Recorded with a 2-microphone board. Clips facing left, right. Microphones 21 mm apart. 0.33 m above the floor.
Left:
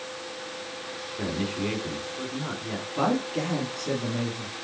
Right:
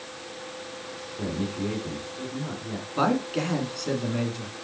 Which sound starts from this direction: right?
A man speaking, at 3.0 s.